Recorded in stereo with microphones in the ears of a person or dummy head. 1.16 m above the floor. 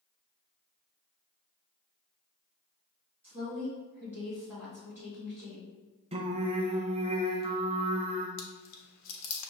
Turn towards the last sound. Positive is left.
turn(degrees=80)